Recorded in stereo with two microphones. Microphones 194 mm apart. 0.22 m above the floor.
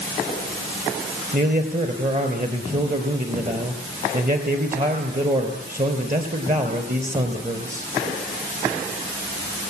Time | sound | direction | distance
1.3 | a man speaking | 40° right (ahead or behind) | 4 m